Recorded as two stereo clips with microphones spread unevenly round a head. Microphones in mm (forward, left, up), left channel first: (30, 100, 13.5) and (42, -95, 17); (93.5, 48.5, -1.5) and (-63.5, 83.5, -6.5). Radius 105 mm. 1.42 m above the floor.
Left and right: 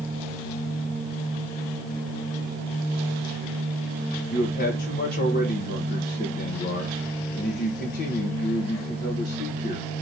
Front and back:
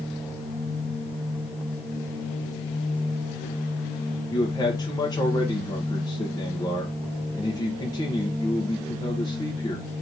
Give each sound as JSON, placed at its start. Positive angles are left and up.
{"t": 4.3, "sound": "a man speaking", "azimuth_deg": 55, "distance_m": 1.1}